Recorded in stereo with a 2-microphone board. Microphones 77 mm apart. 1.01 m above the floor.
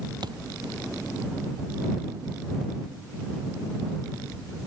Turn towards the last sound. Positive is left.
turn(degrees=-65)  # may be behind; listen again after turning